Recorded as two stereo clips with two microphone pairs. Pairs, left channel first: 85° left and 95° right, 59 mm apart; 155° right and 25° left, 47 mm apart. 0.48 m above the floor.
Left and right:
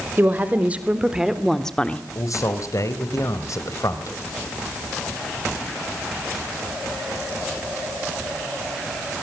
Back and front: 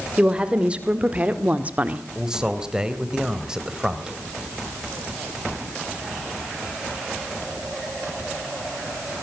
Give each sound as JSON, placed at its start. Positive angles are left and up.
{"t": 0.2, "sound": "a woman speaking", "azimuth_deg": -40, "distance_m": 2.0}
{"t": 2.1, "sound": "a man speaking", "azimuth_deg": 100, "distance_m": 2.5}